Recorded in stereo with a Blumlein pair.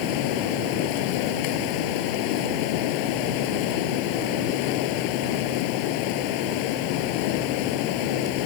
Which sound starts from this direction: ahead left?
Running water, at 0.0 s.